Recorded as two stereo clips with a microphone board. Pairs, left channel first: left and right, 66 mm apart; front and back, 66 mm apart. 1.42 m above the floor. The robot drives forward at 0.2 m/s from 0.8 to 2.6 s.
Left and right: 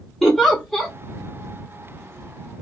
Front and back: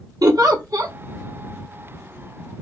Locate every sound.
0.2 s a giggle: 175° left, 0.8 m